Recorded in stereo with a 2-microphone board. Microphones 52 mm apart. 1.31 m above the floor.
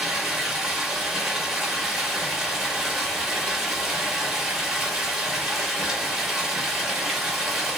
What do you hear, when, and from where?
0.0 s running water: 10° right (ahead or behind), 1.0 m